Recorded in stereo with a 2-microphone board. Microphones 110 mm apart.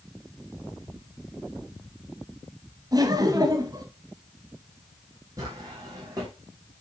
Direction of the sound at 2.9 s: 35° right (ahead or behind).